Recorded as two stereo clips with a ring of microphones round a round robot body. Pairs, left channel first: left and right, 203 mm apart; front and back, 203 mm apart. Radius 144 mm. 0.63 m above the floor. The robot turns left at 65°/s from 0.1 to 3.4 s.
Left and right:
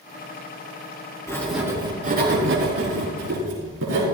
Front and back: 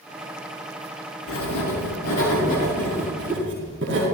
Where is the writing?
15° left, 5 m; by 4.0 s 125° right, 5 m.